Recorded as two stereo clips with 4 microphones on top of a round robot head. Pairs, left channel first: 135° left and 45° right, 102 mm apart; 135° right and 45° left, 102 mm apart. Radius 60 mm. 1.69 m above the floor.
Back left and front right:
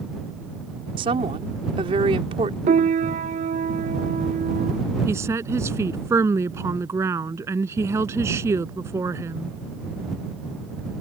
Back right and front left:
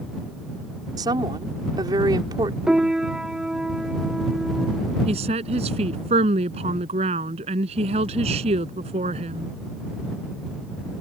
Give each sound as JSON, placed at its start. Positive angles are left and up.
{"t": 1.0, "sound": "a woman speaking", "azimuth_deg": -5}
{"t": 2.7, "sound": "a piano", "azimuth_deg": -35}
{"t": 5.1, "sound": "a woman speaking", "azimuth_deg": 20}